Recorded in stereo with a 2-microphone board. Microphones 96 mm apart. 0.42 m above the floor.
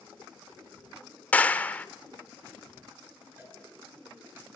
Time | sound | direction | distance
1.3 | a clap | 15° left (ahead or behind) | 1.1 m
3.4 | a cowbell | 20° right (ahead or behind) | 8 m